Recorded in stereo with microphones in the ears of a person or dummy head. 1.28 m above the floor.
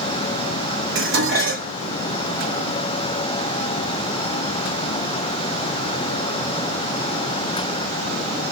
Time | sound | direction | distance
0.9 | dishes clattering | 60° right (ahead or behind) | 1.6 m